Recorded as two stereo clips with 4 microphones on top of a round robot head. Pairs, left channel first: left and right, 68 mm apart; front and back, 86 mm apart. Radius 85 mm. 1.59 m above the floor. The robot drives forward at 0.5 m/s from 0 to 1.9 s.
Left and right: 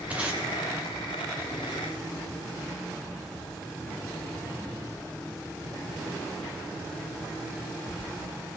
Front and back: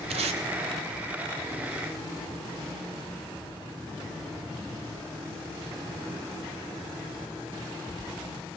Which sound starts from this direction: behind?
Tape being pulled, at 0.1 s.